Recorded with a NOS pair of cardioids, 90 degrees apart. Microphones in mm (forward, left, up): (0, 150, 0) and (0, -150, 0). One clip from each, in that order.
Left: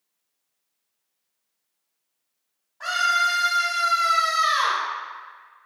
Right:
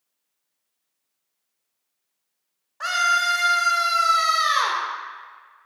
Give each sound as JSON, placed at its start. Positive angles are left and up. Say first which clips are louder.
{"t": 2.8, "sound": "a scream", "louder": "right 1 dB", "azimuth_deg": -60, "distance_m": 0.9}